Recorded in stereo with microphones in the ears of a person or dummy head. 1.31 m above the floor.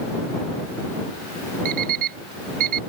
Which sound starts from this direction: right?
An alarm clock, at 1.6 s.